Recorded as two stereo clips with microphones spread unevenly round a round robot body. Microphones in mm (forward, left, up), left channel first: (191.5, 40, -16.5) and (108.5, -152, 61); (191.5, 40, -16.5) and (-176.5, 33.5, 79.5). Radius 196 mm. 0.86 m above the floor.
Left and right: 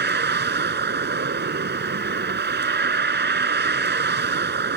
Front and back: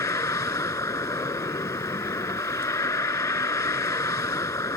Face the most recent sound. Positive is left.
turn(degrees=-85)